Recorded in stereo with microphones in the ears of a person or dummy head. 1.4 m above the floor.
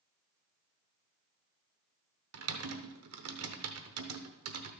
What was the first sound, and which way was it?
Typing on a keyboard, 70° right (ahead or behind).